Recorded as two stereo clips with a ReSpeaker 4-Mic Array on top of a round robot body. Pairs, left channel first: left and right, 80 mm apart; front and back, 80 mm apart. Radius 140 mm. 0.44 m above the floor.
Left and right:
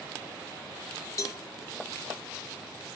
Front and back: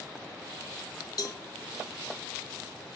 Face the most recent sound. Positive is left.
turn(degrees=40)